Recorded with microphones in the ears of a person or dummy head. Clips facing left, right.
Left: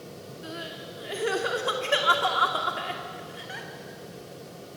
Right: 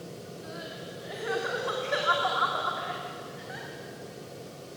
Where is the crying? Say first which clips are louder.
Left 4 dB; 45° left (ahead or behind), 2.5 m.